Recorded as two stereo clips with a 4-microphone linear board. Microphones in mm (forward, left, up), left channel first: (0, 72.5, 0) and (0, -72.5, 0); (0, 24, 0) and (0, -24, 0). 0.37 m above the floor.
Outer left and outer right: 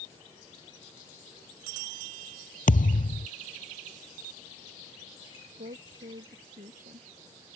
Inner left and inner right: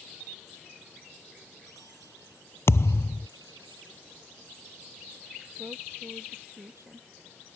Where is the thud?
70° left (ahead or behind).